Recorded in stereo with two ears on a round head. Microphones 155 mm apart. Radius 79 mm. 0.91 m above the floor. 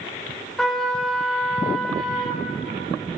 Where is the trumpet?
5° left (ahead or behind), 3 m.